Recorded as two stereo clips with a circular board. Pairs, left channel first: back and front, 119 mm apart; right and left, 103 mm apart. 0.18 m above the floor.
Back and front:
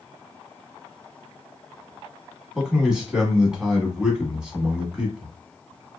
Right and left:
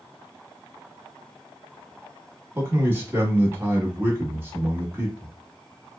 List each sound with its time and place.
2.5 s a man speaking: 75° left, 1.1 m